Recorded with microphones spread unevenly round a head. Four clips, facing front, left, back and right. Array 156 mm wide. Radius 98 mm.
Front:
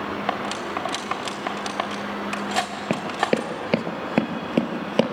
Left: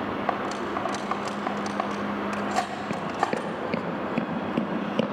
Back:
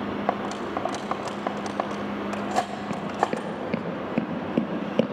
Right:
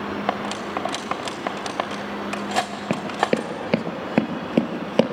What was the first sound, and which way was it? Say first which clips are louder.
Cutlery clinking: right 3 dB, even; 135° right.